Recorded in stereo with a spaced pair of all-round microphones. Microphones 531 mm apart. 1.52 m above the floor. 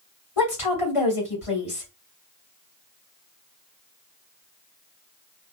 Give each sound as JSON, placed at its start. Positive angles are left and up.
{"t": 0.4, "sound": "a woman speaking", "side_deg": 70, "distance_m": 1.7}